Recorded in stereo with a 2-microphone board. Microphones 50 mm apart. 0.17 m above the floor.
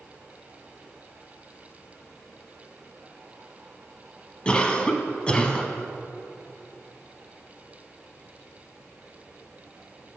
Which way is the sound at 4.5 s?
20° left (ahead or behind).